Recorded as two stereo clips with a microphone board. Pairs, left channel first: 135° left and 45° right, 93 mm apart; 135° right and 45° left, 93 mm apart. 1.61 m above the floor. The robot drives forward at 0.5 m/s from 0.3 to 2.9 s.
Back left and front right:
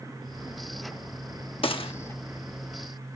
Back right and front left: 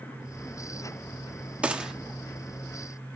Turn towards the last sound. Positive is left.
turn(degrees=145)